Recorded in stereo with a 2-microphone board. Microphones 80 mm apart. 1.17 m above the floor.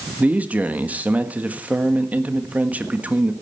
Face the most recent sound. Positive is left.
turn(degrees=-20)  # may be behind; listen again after turning